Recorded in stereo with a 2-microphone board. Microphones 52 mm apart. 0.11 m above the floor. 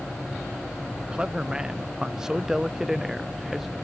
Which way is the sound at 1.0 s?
15° right (ahead or behind).